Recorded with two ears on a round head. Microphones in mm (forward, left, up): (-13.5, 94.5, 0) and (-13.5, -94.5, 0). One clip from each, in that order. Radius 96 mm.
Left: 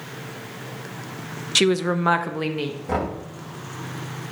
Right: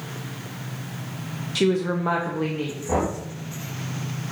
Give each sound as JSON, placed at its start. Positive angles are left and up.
{"t": 1.6, "sound": "a woman speaking", "side_deg": 50, "distance_m": 0.6}
{"t": 2.9, "sound": "knocking", "side_deg": 80, "distance_m": 4.5}